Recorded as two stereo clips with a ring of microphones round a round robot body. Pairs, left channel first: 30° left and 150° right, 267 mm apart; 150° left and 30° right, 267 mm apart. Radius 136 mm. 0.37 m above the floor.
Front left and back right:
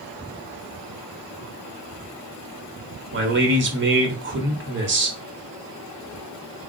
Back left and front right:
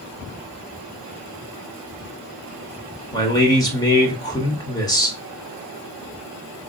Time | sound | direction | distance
3.1 | a man speaking | 140° right | 1.0 m